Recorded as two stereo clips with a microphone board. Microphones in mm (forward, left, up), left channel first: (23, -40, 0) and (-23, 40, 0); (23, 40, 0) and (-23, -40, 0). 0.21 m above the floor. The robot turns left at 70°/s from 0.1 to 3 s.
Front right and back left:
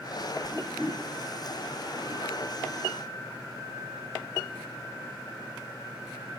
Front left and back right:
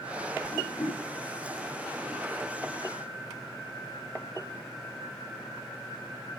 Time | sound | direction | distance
0.5 | a whoosh | 55° left | 5.5 m